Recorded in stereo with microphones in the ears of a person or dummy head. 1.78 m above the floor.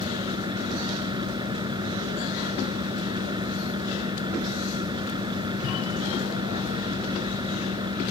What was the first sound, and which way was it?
A fan, 20° right (ahead or behind).